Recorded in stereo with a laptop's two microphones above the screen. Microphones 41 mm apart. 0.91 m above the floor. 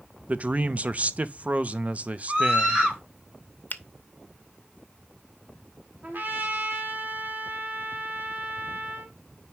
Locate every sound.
0.3 s a man speaking: 40° right (ahead or behind), 0.7 m
2.3 s a scream: 25° right (ahead or behind), 5.5 m
3.7 s a finger snap: 50° left (ahead or behind), 0.8 m
6.0 s a trumpet: 50° right (ahead or behind), 1.7 m